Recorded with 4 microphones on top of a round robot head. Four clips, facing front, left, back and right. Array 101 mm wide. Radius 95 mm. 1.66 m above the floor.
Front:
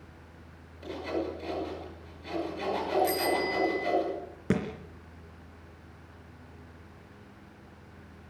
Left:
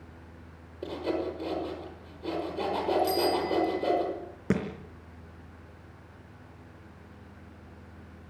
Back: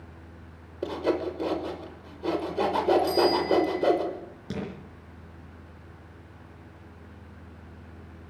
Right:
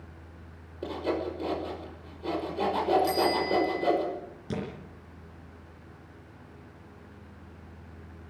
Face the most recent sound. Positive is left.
turn(degrees=50)